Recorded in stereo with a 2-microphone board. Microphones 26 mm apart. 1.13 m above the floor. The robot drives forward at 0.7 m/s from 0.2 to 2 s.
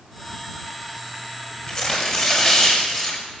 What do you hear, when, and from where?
1.7 s tearing paper: 35° left (ahead or behind), 6 m; by 3.2 s 30° left (ahead or behind), 6.5 m